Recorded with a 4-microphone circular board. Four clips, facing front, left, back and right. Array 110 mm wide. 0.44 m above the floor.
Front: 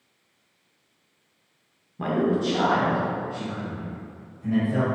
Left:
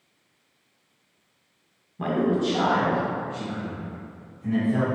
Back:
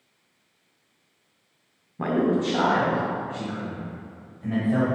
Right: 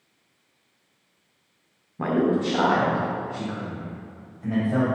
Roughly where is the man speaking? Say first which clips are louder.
Right 1 dB, back 1 dB; behind right.